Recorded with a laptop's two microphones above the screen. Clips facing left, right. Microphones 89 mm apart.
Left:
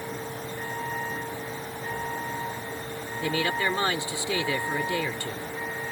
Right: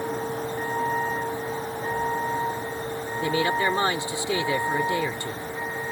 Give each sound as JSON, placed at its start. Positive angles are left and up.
{"t": 0.0, "sound": "a vehicle", "side_deg": -30}
{"t": 3.2, "sound": "a man speaking", "side_deg": -20}